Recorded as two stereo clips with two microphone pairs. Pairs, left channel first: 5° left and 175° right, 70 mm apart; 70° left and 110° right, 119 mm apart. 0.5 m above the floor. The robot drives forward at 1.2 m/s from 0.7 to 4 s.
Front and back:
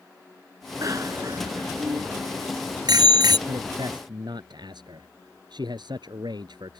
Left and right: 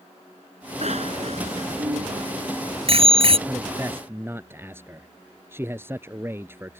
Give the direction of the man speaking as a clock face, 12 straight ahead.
6 o'clock.